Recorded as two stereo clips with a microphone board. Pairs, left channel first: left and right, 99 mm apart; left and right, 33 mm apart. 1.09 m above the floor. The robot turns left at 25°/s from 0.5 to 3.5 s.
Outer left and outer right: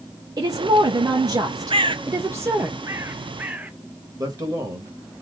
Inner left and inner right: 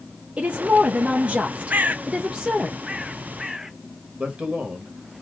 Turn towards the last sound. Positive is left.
turn(degrees=-40)  # may be behind; listen again after turning